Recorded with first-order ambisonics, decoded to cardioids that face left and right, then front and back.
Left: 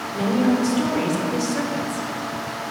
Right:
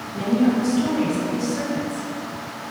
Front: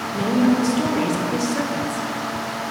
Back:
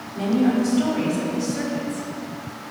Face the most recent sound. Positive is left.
turn(degrees=25)